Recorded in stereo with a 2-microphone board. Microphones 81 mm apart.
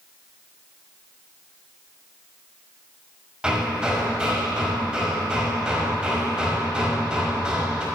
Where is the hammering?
10° right (ahead or behind), 1.7 m.